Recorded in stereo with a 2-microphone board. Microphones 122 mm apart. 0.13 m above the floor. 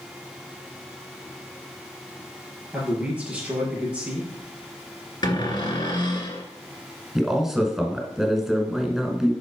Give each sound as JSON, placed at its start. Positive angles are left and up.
{"t": 2.7, "sound": "a man speaking", "side_deg": -10, "distance_m": 3.0}
{"t": 5.2, "sound": "a cupboard door", "side_deg": 40, "distance_m": 1.5}
{"t": 7.2, "sound": "a man speaking", "side_deg": -5, "distance_m": 1.4}